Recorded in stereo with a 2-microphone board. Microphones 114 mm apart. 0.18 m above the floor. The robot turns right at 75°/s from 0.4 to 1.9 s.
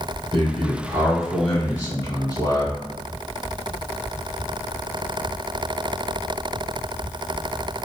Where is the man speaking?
65° right, 1.8 m; by 2.8 s 45° left, 1.8 m.